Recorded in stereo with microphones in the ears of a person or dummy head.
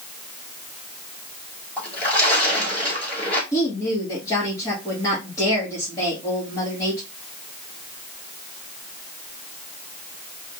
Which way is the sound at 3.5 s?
20° left (ahead or behind).